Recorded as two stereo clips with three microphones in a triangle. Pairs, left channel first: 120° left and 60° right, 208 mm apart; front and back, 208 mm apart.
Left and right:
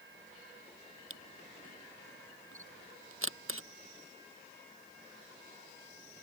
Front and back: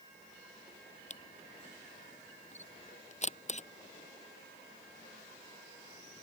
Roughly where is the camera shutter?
Ahead right.